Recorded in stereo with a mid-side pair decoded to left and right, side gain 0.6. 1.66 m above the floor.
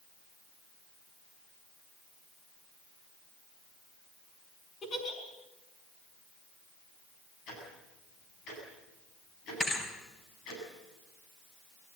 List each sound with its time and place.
4.8 s a giggle: 45° left, 5.5 m
7.5 s ticking: 65° left, 8.5 m
9.6 s a thud: 25° left, 4.5 m